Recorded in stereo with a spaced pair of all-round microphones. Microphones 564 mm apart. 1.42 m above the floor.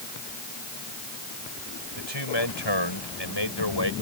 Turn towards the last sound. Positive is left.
turn(degrees=45)  # may be behind; listen again after turning